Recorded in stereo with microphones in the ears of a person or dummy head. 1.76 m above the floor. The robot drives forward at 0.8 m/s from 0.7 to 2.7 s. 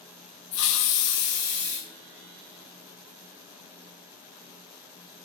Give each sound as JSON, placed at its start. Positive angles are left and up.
{"t": 0.5, "sound": "a hiss", "side_deg": 65, "distance_m": 0.6}